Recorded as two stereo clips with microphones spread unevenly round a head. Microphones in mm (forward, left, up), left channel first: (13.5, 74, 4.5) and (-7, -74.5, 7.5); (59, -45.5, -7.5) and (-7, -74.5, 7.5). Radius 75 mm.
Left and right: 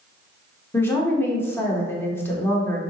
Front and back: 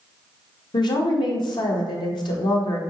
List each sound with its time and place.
0.7 s a woman speaking: 5° left, 0.9 m